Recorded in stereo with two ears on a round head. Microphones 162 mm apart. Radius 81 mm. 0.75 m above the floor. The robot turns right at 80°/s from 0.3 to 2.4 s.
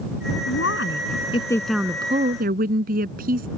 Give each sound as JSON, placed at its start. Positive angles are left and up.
{"t": 0.5, "sound": "a woman speaking", "azimuth_deg": 80}